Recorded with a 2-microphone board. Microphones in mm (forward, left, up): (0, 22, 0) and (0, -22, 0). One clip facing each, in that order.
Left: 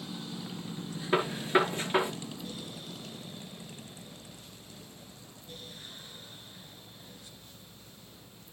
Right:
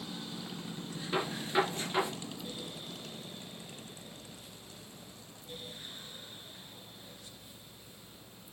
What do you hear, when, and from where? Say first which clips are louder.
1.1 s a gunshot: left 5 dB; 30° left (ahead or behind), 5 m